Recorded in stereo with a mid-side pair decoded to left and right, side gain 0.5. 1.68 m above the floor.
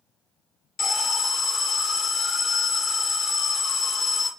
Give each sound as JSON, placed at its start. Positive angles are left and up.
{"t": 0.8, "sound": "an alarm", "azimuth_deg": 55, "distance_m": 0.8}